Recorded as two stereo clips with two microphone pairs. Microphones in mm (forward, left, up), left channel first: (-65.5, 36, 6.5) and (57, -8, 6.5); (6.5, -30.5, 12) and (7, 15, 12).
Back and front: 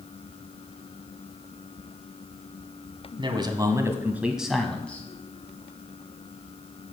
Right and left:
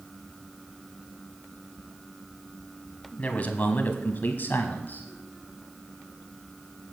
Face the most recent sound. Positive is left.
turn(degrees=-125)